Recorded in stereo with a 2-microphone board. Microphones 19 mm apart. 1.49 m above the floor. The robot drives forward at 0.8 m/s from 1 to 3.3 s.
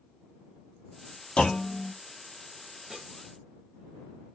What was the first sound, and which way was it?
A clunk, 65° left (ahead or behind).